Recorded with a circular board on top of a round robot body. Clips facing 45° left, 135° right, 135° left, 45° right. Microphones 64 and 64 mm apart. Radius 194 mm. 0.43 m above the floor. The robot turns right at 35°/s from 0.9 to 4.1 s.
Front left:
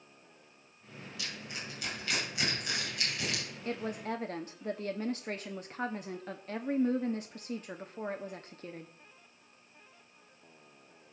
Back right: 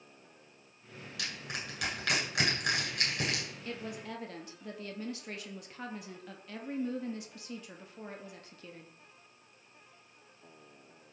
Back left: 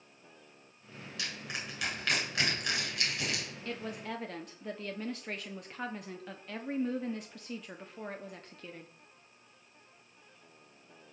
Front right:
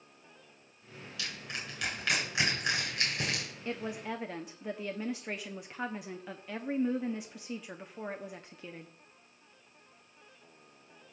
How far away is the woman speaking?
About 1.2 m.